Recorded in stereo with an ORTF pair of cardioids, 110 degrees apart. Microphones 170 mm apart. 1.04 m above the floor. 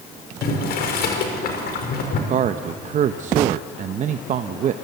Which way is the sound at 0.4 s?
65° left.